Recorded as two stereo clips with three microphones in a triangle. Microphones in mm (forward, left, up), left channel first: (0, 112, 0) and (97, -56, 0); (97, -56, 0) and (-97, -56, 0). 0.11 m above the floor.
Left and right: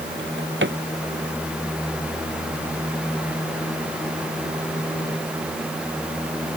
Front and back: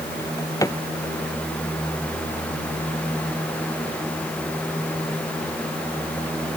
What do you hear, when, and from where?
0.2 s a drawer: 70° right